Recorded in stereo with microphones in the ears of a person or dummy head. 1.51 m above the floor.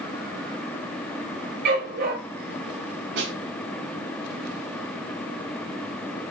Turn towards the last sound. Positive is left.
turn(degrees=-70)  # may be behind; listen again after turning